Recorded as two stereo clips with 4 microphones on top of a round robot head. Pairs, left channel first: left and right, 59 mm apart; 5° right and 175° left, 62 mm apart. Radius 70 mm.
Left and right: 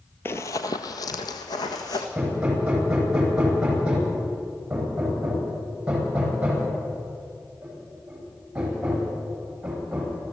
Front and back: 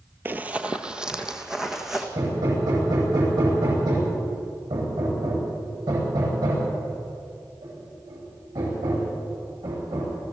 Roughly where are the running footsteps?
Behind left.